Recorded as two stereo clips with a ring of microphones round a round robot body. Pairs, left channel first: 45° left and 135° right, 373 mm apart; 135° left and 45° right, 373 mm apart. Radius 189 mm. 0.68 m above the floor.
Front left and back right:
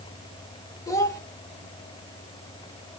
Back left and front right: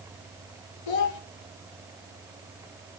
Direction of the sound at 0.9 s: 125° left.